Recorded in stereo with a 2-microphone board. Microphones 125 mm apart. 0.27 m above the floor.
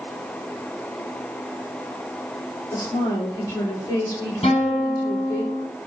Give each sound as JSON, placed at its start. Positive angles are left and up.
{"t": 2.7, "sound": "a woman speaking", "side_deg": 25, "distance_m": 6.0}
{"t": 4.4, "sound": "a guitar", "side_deg": 50, "distance_m": 6.0}